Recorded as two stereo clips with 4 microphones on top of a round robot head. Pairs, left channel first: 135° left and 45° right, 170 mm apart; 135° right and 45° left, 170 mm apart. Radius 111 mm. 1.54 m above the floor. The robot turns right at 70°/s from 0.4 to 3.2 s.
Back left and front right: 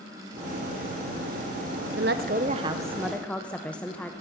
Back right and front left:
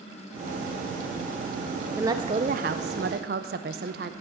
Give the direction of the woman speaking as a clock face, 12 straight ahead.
1 o'clock.